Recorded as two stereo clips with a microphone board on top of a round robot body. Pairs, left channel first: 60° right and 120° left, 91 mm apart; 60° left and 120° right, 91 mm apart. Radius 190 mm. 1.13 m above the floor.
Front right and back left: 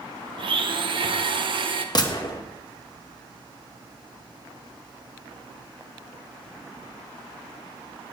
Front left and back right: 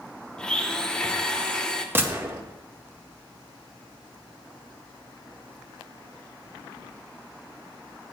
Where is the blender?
140° left, 0.7 m.